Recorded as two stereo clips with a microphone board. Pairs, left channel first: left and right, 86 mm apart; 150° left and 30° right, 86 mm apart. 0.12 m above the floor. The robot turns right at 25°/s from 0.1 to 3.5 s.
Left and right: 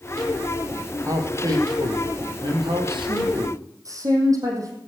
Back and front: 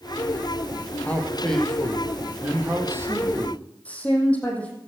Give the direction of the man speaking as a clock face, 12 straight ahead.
5 o'clock.